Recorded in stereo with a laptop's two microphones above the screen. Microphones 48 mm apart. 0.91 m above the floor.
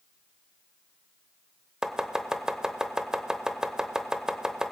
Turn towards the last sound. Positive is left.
turn(degrees=-15)  # may be behind; listen again after turning